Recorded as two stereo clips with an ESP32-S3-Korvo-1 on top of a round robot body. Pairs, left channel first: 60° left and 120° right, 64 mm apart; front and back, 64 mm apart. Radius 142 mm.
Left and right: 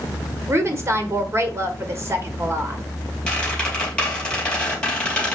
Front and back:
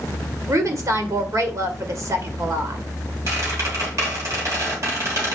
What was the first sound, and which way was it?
A woman speaking, 160° right.